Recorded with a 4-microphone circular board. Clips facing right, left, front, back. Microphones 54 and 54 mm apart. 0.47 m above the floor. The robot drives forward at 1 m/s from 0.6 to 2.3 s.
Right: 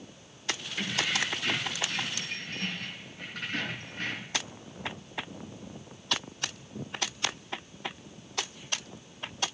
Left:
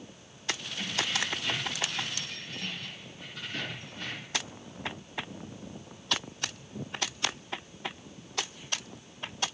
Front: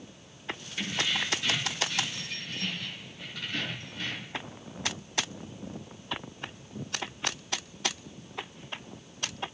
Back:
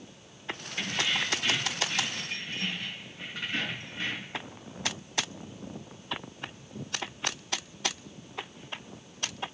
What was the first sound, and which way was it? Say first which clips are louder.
Keys jangling: right 3 dB, back 1 dB; 95° right.